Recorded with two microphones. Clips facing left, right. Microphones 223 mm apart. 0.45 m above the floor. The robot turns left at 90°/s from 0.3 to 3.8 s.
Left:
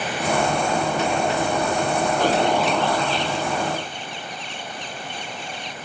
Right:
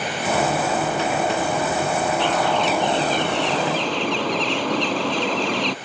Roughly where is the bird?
Ahead left.